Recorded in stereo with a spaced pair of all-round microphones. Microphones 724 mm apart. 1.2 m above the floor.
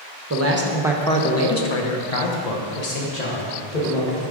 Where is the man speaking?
25° right (ahead or behind), 1.0 m; by 4.2 s 85° left, 2.0 m.